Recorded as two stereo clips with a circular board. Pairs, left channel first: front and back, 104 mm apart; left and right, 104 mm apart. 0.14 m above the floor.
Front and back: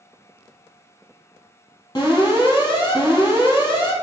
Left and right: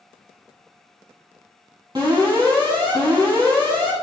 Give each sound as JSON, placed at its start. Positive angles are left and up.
{"t": 1.9, "sound": "an alarm", "azimuth_deg": -45, "distance_m": 3.0}